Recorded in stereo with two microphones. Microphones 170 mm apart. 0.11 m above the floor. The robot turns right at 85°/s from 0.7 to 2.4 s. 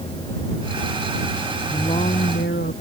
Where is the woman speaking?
15° left; by 2.7 s 75° left.